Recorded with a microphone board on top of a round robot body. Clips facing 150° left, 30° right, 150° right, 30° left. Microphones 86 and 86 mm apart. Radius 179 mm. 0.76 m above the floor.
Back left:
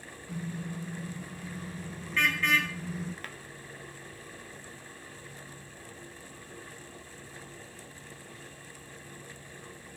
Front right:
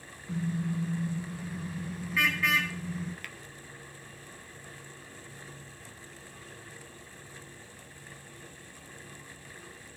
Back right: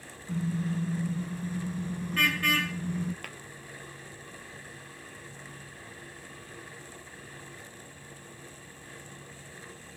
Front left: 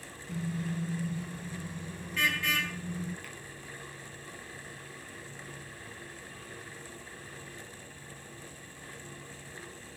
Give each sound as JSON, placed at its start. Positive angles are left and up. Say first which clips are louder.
{"t": 0.3, "sound": "a car horn", "louder": "front right 6 dB, back right 4 dB", "azimuth_deg": -95, "distance_m": 5.5}
{"t": 3.2, "sound": "tapping", "louder": "back left 2 dB, back right 2 dB", "azimuth_deg": -160, "distance_m": 1.6}